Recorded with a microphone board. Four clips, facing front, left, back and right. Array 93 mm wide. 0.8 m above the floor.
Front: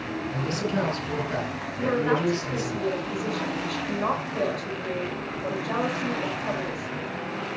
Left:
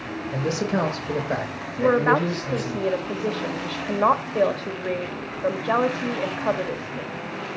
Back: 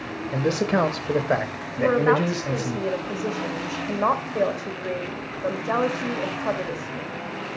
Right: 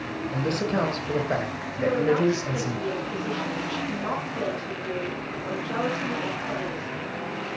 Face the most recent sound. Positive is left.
turn(degrees=115)